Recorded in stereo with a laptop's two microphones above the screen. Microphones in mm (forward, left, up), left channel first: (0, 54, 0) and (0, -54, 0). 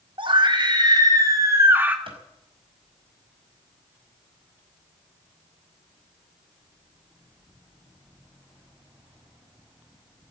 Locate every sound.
0.2 s a scream: 50° right (ahead or behind), 3.5 m; by 2.0 s 15° right (ahead or behind), 2.5 m
2.1 s a clap: 55° right (ahead or behind), 5 m